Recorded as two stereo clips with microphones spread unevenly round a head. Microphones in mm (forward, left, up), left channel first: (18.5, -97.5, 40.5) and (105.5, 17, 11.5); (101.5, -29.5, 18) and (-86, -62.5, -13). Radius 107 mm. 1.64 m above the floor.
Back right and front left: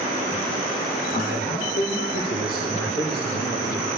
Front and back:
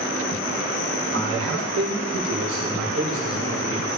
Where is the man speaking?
Straight behind, 5.5 m; by 3.9 s 170° right, 6.5 m.